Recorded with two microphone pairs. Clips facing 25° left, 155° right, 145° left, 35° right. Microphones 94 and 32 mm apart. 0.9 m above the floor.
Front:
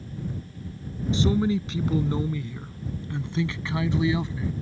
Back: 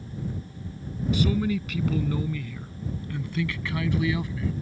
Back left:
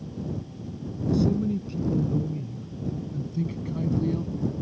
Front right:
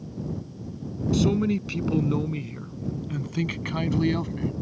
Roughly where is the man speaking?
Ahead right.